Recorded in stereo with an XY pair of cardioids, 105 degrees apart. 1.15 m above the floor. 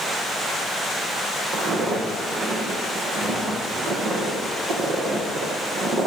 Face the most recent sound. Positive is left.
turn(degrees=-70)